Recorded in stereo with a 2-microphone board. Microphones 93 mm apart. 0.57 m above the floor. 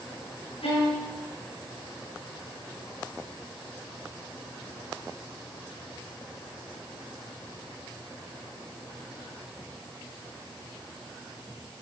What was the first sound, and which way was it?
A violin, 80° left.